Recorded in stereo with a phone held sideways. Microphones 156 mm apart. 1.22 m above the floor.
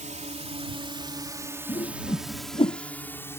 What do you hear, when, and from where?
0.0 s a drone: 50° right (ahead or behind); by 3.4 s 15° left (ahead or behind)
1.7 s a whoosh: 35° left (ahead or behind)